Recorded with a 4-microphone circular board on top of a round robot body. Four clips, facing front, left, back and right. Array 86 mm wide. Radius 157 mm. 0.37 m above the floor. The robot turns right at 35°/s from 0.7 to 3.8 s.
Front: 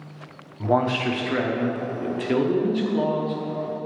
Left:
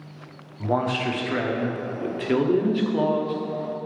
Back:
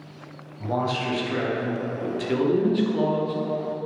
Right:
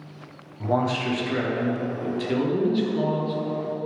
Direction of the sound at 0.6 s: 10° left.